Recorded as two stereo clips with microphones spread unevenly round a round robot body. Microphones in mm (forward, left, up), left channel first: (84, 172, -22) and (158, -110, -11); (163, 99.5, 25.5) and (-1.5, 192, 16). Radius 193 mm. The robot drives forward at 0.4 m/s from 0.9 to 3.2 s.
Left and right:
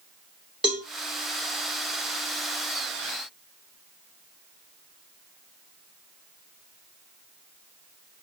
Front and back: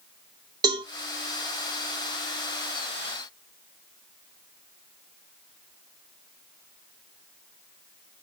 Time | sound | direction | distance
0.6 | a cowbell | 165° right | 0.6 m